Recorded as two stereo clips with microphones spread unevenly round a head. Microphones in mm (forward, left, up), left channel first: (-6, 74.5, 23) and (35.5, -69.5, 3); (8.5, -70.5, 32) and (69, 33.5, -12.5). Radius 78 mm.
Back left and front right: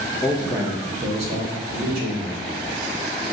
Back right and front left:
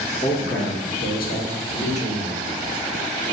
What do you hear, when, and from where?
0.2 s a man speaking: 170° right, 0.8 m; by 2.4 s 85° right, 1.5 m